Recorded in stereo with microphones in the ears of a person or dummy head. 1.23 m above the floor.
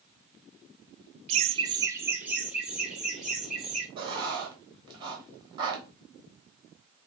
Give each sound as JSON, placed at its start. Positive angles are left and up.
{"t": 1.3, "sound": "laughter", "side_deg": -25, "distance_m": 0.5}
{"t": 4.0, "sound": "writing", "side_deg": -25, "distance_m": 1.5}